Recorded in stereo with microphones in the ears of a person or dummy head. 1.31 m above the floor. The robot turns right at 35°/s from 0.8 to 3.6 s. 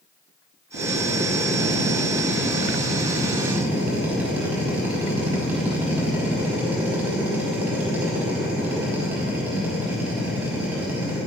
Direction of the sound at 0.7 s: 110° right.